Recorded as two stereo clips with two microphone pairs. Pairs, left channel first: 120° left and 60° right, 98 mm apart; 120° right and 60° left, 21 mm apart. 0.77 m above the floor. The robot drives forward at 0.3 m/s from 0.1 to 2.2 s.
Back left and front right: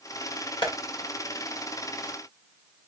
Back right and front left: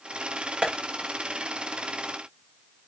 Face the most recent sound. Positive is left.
turn(degrees=105)